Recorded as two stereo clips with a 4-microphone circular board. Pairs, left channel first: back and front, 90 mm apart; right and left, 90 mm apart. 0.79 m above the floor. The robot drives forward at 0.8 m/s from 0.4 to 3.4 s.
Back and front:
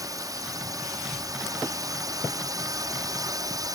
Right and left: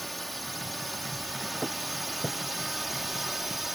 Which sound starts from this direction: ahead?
A drone, at 0.0 s.